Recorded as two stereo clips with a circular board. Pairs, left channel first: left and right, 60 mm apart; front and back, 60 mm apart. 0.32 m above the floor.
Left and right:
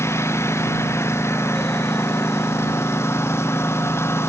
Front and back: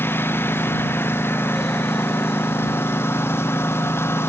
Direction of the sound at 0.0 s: 50° left.